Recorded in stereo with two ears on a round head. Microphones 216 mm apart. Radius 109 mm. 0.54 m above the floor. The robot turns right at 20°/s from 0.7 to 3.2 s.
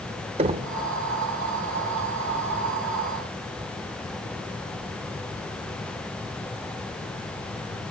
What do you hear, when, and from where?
0.4 s knocking: 25° right (ahead or behind), 0.8 m